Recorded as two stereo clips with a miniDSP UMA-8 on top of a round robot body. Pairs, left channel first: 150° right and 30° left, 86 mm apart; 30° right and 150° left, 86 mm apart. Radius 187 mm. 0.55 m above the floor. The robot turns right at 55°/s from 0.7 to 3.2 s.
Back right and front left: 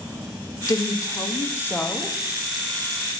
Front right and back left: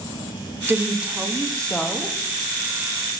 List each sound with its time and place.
0.7 s a woman speaking: 155° right, 1.3 m; by 2.2 s 75° right, 1.3 m